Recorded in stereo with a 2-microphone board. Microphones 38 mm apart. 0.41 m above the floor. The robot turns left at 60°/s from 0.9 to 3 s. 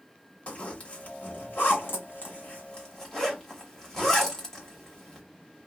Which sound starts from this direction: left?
A zipper, at 0.5 s.